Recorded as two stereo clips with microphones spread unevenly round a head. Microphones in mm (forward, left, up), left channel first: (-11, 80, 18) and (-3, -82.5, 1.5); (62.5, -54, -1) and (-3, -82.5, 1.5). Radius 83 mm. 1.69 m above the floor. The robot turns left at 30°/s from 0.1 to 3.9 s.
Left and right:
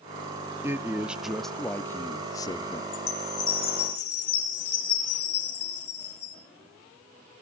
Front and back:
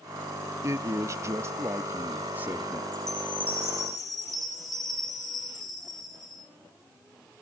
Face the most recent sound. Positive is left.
turn(degrees=115)